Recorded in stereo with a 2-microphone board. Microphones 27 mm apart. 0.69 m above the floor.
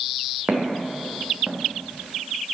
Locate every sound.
0.5 s footsteps: 55° right (ahead or behind), 3 m; by 1.6 s 35° right (ahead or behind), 2.0 m